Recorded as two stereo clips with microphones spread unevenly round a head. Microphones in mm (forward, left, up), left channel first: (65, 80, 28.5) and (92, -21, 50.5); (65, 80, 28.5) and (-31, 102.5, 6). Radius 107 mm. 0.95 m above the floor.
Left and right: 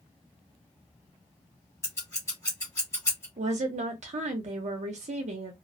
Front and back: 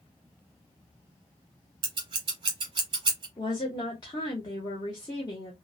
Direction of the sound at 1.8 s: Straight behind.